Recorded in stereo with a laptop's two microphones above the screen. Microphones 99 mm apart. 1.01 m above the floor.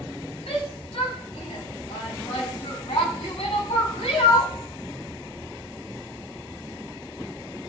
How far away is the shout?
About 7 m.